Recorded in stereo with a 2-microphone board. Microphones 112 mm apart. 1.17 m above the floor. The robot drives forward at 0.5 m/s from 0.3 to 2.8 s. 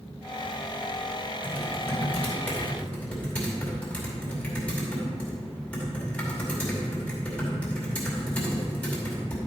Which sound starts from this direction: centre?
Typing on a keyboard, at 1.4 s.